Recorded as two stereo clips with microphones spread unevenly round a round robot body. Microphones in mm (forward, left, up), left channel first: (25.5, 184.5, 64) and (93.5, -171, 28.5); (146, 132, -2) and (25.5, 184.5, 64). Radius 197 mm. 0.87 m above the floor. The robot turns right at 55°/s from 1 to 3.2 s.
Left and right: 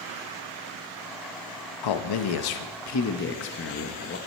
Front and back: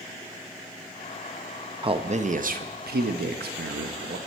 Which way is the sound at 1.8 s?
85° left.